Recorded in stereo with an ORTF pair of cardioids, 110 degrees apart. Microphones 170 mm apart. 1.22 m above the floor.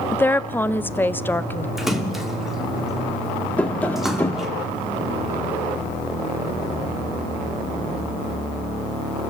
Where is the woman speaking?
10° left, 0.9 m.